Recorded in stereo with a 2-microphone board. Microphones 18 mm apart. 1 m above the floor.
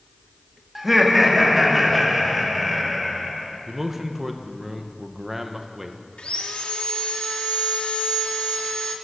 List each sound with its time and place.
0.8 s laughter: 10° right (ahead or behind), 1.3 m; by 3.5 s 5° right (ahead or behind), 4 m
3.7 s a man speaking: 15° right (ahead or behind), 0.8 m
6.2 s sawing: 75° left (ahead or behind), 1.1 m